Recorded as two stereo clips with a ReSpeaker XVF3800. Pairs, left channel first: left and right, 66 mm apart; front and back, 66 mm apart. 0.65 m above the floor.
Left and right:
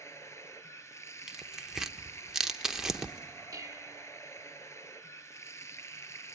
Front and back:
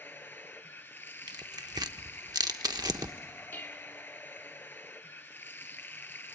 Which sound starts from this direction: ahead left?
Running water, at 0.0 s.